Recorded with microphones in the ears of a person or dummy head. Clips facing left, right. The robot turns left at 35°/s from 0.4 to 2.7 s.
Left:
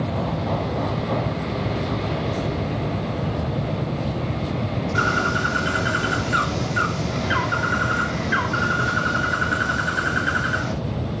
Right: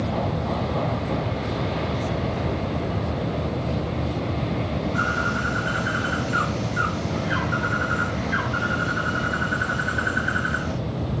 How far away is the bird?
About 2 m.